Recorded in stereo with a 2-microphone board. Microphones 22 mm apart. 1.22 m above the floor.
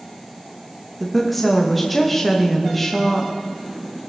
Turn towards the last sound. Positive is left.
turn(degrees=10)  # may be behind; listen again after turning